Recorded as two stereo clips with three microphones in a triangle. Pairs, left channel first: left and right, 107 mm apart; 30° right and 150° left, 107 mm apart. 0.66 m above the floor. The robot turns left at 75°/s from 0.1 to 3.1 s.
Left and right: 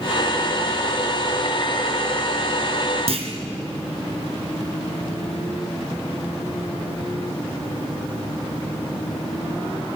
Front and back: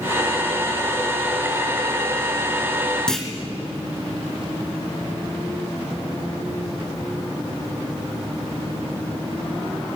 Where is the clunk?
115° right, 2.5 m.